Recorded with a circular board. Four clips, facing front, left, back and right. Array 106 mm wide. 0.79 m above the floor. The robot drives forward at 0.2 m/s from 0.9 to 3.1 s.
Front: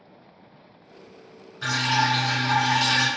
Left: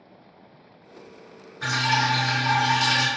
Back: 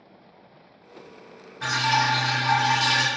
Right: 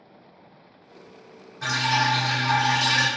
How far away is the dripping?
About 1.8 m.